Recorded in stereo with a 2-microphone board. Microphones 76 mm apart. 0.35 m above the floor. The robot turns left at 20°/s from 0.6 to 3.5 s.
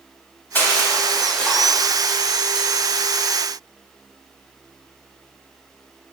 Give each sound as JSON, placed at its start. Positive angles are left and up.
{"t": 0.6, "sound": "crushing", "side_deg": 25, "distance_m": 0.7}